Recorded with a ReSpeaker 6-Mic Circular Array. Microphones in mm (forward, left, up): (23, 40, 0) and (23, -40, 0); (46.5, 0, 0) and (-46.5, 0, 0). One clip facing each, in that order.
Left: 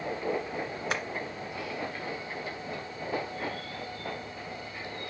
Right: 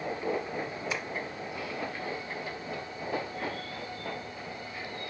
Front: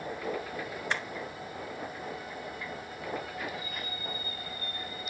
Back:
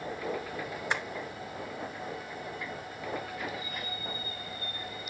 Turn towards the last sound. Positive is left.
turn(degrees=105)